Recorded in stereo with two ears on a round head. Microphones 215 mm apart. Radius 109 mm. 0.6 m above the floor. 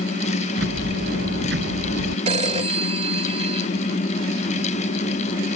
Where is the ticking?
45° right (ahead or behind).